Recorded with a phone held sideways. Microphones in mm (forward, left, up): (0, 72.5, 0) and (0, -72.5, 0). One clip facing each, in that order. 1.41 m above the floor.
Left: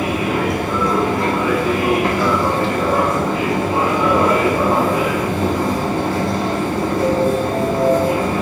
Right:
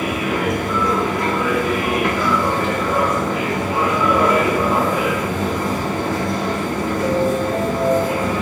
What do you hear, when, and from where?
0.0 s a machine running: 30° left (ahead or behind), 0.9 m